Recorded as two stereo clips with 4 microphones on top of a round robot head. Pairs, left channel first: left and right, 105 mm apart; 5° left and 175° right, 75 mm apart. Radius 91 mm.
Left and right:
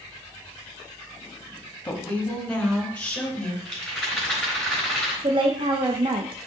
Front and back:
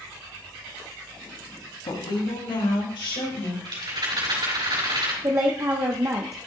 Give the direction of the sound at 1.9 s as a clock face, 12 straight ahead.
12 o'clock.